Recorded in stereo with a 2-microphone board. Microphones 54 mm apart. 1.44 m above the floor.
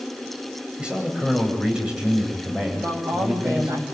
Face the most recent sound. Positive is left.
turn(degrees=-70)  # may be behind; listen again after turning